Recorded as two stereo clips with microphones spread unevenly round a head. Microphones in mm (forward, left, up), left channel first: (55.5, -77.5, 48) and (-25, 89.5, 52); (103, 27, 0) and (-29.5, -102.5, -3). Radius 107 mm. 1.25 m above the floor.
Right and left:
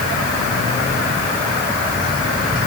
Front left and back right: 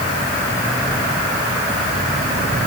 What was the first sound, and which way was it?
Only background noise.